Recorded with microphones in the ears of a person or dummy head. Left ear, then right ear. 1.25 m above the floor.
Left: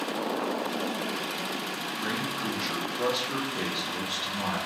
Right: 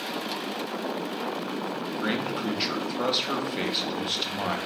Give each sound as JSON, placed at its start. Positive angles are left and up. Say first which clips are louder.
{"t": 2.0, "sound": "a man speaking", "louder": "right 3 dB", "side_deg": -50, "distance_m": 0.7}